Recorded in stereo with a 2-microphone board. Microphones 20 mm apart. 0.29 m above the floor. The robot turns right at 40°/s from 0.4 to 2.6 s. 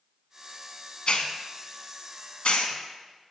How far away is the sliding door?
No sliding door in this recording.